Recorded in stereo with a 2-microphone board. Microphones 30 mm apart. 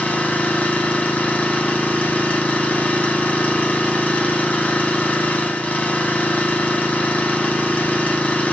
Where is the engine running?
60° left (ahead or behind), 4 m.